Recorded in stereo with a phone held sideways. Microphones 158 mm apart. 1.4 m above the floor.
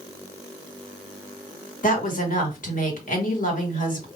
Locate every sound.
1.8 s a woman speaking: 60° left (ahead or behind), 2 m